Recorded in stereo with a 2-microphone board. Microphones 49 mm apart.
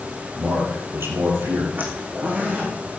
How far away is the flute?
I don't hear a flute.